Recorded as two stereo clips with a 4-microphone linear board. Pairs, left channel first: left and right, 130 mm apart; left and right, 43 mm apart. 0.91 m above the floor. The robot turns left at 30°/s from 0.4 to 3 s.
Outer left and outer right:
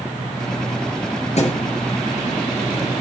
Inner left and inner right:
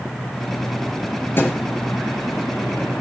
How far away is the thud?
About 5 m.